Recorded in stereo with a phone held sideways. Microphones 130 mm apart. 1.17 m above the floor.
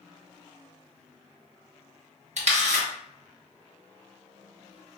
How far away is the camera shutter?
About 1.0 m.